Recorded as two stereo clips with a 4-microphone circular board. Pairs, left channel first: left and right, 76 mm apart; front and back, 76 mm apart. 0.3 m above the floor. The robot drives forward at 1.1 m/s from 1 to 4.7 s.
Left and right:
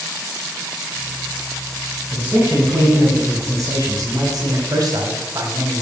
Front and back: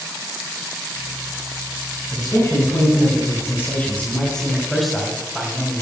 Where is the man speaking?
30° right, 3.5 m; by 5.8 s 90° right, 2 m.